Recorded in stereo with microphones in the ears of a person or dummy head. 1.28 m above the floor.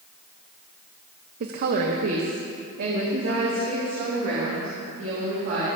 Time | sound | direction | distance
1.4 | a woman speaking | 55° right (ahead or behind) | 0.7 m